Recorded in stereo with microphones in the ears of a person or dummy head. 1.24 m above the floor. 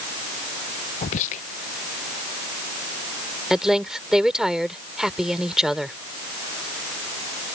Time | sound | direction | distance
1.0 | whispering | 40° left (ahead or behind) | ?
3.5 | a woman speaking | centre (ahead or behind) | ?